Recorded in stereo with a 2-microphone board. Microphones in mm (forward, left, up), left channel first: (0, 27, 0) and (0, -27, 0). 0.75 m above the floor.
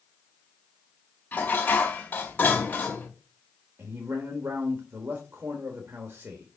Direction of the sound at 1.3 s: 30° left (ahead or behind).